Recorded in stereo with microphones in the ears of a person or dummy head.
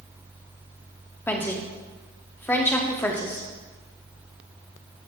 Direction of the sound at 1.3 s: 10° left (ahead or behind).